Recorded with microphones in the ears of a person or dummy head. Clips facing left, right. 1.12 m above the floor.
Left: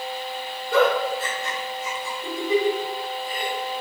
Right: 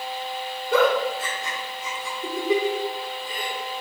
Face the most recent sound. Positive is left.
turn(degrees=-65)  # may be behind; listen again after turning